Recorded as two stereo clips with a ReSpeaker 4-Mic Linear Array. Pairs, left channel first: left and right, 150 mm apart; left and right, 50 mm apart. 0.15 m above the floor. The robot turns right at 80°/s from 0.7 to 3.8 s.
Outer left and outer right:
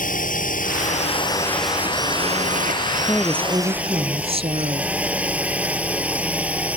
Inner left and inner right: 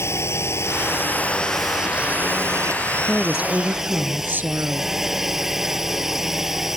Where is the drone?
105° left; by 6.8 s 10° right.